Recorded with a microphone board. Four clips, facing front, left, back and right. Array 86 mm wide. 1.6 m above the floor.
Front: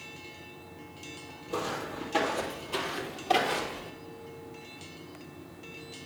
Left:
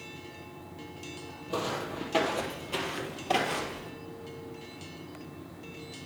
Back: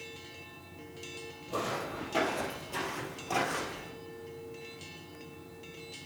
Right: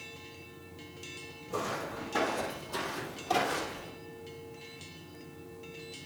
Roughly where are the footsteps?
Left.